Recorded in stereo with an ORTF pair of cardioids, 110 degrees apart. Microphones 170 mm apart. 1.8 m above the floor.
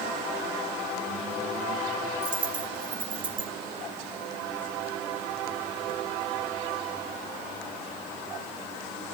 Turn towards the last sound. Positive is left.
turn(degrees=-60)